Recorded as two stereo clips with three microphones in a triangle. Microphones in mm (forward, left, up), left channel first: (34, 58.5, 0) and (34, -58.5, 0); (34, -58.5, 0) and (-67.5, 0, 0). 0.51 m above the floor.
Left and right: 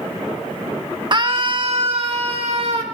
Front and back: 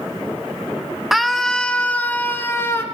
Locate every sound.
1.1 s a scream: 120° right, 1.9 m; by 2.8 s 95° right, 3 m